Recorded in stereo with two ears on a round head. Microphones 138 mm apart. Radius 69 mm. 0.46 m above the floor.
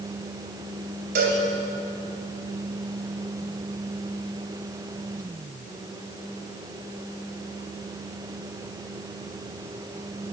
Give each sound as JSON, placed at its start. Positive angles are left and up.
{"t": 1.1, "sound": "a cowbell", "side_deg": -65, "distance_m": 2.5}